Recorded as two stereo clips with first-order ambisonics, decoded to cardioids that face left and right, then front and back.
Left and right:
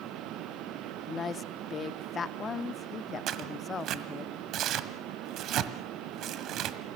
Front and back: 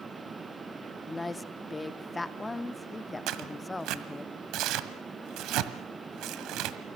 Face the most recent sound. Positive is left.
turn(degrees=-140)